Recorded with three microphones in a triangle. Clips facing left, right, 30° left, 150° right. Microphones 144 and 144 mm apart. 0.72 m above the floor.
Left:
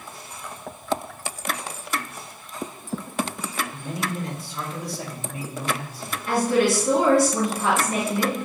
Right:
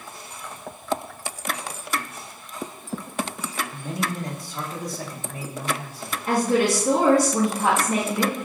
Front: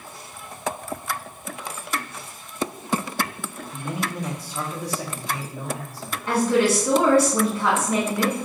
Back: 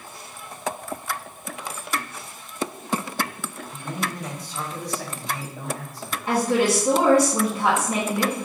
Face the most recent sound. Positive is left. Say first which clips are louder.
# even, front 1 dB
turn(degrees=-85)